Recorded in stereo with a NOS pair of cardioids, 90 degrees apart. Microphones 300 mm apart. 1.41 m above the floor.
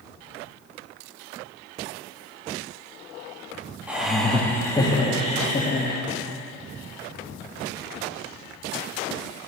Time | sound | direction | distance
3.9 | laughter | 5° right | 2.0 m